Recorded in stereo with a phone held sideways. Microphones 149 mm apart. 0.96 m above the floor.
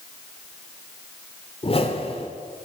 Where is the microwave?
No microwave in this recording.